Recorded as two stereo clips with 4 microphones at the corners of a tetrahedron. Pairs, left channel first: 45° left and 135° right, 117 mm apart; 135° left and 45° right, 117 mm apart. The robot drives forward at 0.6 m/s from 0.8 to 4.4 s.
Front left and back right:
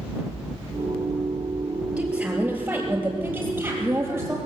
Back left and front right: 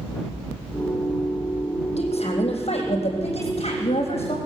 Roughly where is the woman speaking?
Behind left.